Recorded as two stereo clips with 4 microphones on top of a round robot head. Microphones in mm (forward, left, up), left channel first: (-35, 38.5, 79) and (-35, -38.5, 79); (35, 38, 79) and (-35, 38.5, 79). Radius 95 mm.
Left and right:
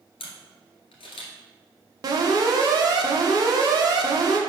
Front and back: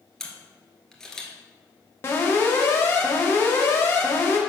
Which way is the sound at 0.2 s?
85° left.